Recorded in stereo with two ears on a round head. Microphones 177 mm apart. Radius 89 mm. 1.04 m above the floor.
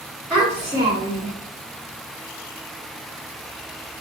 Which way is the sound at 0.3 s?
5° right (ahead or behind).